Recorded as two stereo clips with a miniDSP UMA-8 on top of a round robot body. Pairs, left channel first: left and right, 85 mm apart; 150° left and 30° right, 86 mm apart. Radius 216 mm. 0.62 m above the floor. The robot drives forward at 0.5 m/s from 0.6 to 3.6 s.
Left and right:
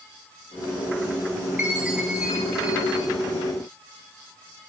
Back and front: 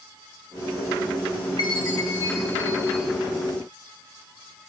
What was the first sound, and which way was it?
A chime, 165° right.